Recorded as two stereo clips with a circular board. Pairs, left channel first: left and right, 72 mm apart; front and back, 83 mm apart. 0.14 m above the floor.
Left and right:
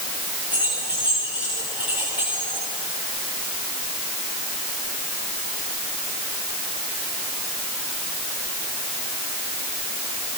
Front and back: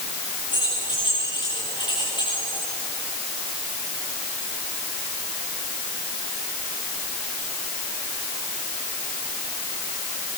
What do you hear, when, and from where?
0.5 s keys jangling: 20° right, 10 m